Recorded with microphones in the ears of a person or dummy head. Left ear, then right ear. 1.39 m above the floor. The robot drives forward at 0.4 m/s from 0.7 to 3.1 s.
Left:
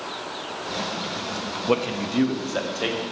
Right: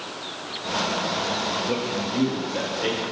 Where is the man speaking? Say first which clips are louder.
Left 2 dB; 55° left (ahead or behind), 0.6 m; by 3.0 s 30° left (ahead or behind), 1.0 m.